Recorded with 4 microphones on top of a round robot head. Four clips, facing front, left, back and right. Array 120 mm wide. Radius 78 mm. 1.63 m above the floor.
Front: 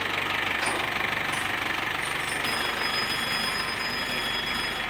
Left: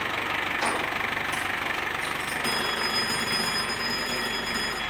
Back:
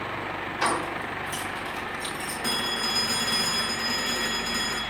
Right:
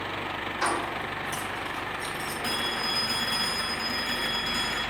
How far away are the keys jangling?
About 2.5 m.